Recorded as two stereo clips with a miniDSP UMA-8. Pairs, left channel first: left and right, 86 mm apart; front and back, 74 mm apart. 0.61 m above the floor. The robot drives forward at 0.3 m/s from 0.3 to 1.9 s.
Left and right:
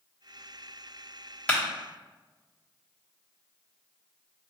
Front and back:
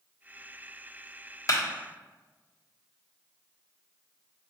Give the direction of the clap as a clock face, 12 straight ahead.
11 o'clock.